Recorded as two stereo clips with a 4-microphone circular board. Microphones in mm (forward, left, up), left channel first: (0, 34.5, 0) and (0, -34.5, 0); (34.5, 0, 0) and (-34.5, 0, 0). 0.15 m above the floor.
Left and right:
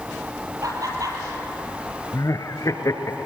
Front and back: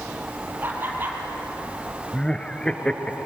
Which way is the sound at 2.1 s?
75° left.